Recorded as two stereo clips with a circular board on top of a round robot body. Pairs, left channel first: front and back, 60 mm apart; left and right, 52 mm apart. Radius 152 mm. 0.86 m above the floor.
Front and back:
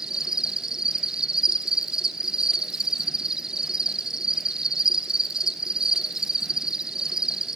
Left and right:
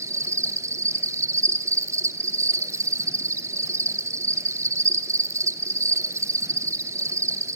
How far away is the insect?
About 0.9 m.